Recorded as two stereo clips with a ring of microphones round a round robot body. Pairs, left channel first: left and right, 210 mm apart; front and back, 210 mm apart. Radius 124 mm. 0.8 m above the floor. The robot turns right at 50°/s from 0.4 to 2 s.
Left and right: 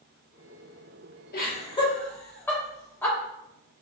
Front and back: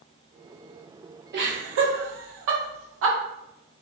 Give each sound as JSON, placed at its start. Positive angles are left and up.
{"t": 1.3, "sound": "laughter", "azimuth_deg": 135, "distance_m": 1.4}